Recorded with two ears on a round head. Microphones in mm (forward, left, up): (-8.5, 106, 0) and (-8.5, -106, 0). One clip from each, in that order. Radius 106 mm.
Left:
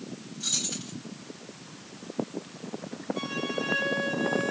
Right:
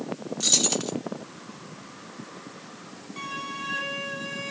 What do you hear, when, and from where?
0.4 s keys jangling: 65° right (ahead or behind), 1.3 m
3.2 s a violin: 35° right (ahead or behind), 4 m